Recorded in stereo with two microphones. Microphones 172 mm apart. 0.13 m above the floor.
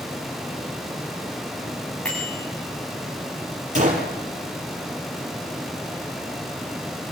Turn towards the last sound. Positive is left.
turn(degrees=-45)  # may be behind; listen again after turning